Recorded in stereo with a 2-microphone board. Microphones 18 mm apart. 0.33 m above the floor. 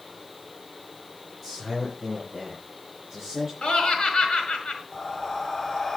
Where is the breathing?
20° left (ahead or behind), 1.0 m.